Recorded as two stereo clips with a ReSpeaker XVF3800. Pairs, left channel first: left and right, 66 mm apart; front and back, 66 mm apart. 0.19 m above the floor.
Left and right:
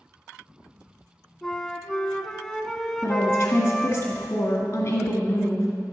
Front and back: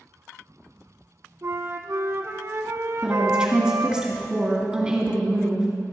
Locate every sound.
1.4 s a flute: 170° left, 0.8 m
3.0 s a woman speaking: 110° left, 1.8 m